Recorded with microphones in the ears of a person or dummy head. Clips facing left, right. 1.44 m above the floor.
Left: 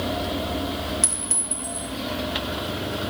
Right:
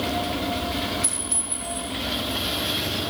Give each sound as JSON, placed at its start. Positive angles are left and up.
{"t": 1.0, "sound": "a clink", "side_deg": 50, "distance_m": 2.0}